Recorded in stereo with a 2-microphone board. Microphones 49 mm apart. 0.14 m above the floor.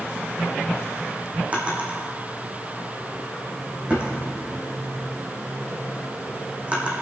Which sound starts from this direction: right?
A drawer, at 1.5 s.